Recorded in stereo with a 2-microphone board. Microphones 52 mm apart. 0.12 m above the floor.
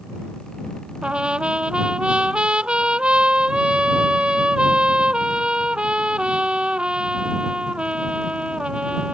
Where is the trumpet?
20° right (ahead or behind).